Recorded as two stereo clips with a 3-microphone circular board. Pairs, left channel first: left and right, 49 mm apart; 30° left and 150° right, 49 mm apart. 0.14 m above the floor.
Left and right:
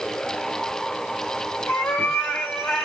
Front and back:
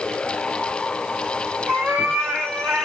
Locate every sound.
1.7 s a cat meowing: 140° left, 2.5 m; by 2.9 s 125° left, 2 m